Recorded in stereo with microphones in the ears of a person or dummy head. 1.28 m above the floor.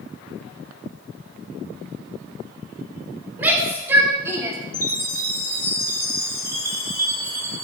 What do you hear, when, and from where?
3.4 s a shout: 10° right (ahead or behind), 4 m; by 4.6 s 20° right (ahead or behind), 2.5 m
4.7 s a chime: 15° right (ahead or behind), 2.5 m